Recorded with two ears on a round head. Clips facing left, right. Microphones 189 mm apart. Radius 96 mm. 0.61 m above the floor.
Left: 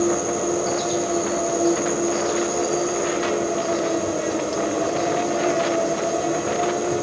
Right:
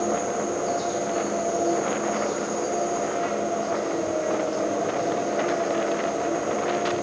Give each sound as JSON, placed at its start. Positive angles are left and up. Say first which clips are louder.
{"t": 0.0, "sound": "an insect", "louder": "left 4 dB", "side_deg": 45, "distance_m": 2.0}